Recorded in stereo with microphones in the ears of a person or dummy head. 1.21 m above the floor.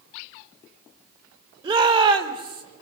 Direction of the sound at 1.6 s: 30° right (ahead or behind).